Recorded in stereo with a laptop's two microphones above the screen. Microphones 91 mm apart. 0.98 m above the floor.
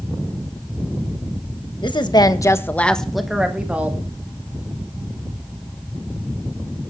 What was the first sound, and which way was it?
A woman speaking, 55° left (ahead or behind).